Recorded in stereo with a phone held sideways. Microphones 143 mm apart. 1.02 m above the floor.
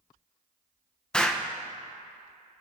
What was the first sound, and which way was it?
An explosion, 5° left (ahead or behind).